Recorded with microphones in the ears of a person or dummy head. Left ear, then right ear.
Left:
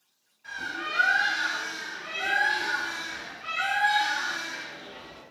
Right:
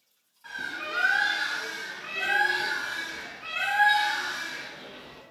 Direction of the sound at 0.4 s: 50° right (ahead or behind).